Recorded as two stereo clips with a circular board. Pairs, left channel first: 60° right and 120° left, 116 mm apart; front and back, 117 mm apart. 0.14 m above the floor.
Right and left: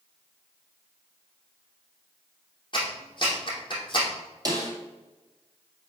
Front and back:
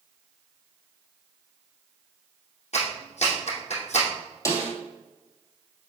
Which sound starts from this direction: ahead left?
A snare drum, at 4.5 s.